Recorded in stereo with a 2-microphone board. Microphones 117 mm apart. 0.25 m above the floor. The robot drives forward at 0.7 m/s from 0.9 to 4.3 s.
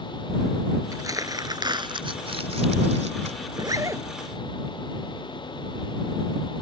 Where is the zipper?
40° right (ahead or behind); by 4.0 s 25° right (ahead or behind).